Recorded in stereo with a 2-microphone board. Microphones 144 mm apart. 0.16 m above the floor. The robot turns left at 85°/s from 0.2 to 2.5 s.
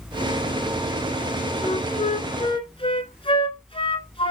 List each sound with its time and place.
1.6 s a flute: 130° left, 1.1 m; by 4.3 s 55° left, 1.1 m